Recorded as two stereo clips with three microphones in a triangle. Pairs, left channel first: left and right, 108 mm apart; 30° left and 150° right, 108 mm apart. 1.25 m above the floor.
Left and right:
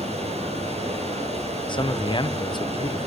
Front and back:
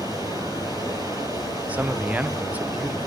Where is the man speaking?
135° left, 0.5 m.